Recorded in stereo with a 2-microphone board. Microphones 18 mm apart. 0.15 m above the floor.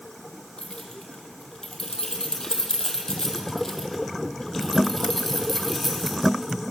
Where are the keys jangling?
50° left (ahead or behind), 3.5 m; by 6.6 s centre (ahead or behind), 4.5 m.